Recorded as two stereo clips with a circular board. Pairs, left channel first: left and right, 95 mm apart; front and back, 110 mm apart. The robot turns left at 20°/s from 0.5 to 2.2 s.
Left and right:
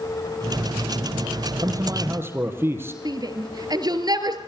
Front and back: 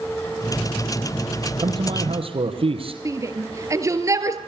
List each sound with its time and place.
1.6 s a man speaking: 140° right, 4 m; by 3.0 s 155° right, 4 m
3.0 s a shout: 125° right, 3 m